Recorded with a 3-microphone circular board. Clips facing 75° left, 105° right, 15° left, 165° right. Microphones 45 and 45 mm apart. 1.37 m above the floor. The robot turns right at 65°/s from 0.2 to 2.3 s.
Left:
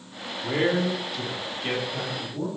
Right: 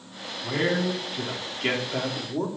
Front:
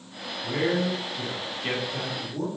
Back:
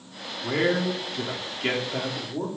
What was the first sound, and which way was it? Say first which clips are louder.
A man speaking: left 1 dB, back 2 dB; 140° left.